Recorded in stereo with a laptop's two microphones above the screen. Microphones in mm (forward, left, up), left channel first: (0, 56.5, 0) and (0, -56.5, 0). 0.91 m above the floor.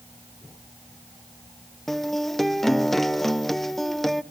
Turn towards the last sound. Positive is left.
turn(degrees=0)  # may be behind; listen again after turning